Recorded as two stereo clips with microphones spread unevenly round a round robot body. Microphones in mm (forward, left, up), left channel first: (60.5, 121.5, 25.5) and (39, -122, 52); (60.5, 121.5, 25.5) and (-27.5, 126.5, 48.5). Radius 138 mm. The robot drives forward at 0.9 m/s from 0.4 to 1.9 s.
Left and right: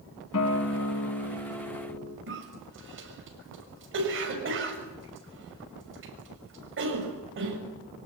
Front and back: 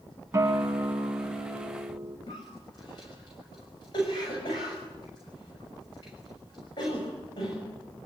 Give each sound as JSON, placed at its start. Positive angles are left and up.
{"t": 0.3, "sound": "a guitar", "azimuth_deg": 125, "distance_m": 2.0}
{"t": 2.3, "sound": "a cough", "azimuth_deg": -55, "distance_m": 6.5}